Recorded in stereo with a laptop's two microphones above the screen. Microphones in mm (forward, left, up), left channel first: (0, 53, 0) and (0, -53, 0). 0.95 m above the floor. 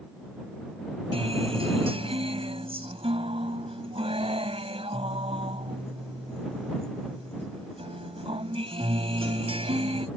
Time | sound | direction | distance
1.1 | a guitar | 65° right (ahead or behind) | ?